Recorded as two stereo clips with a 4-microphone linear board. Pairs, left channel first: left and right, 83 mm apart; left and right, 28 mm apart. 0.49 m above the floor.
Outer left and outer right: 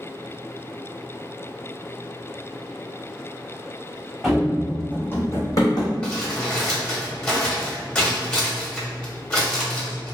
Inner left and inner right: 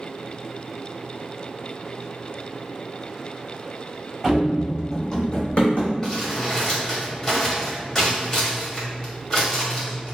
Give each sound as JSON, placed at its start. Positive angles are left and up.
{"t": 4.2, "sound": "running footsteps", "side_deg": -5, "distance_m": 1.3}
{"t": 6.0, "sound": "crumpling", "side_deg": 15, "distance_m": 1.3}